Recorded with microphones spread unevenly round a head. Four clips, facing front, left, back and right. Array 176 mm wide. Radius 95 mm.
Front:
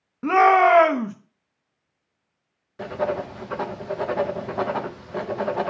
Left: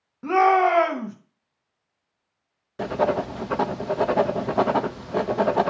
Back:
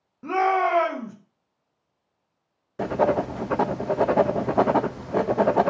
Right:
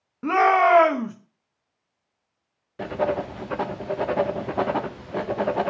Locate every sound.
0.2 s a shout: 20° right, 1.1 m
2.8 s writing: 155° left, 0.6 m